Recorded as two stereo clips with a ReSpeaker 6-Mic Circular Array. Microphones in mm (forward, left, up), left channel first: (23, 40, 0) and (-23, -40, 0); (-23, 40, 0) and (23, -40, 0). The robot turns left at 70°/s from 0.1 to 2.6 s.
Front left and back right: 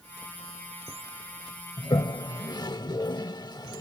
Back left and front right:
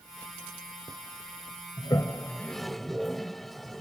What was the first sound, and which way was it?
A toilet flushing, 90° left.